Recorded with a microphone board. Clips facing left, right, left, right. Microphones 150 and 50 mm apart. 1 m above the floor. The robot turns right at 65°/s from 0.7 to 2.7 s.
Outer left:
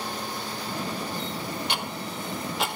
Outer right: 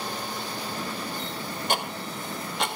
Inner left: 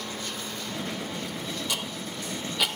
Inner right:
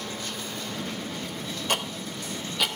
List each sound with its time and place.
1.7 s ticking: 45° right (ahead or behind), 0.8 m; by 2.7 s 5° left (ahead or behind), 0.8 m